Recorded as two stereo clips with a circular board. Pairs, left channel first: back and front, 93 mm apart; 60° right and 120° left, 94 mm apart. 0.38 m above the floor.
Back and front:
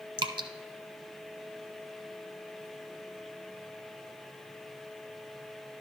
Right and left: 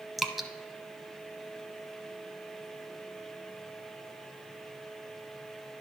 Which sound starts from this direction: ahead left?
Dripping, at 0.2 s.